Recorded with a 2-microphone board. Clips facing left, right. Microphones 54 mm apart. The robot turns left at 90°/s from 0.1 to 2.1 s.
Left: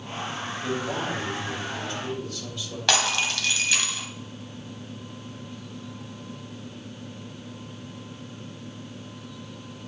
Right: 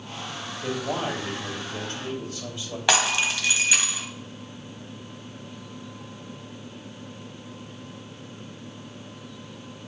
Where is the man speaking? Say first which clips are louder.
Right 2 dB; 20° right, 2.5 m; by 2.8 s 150° right, 2.5 m.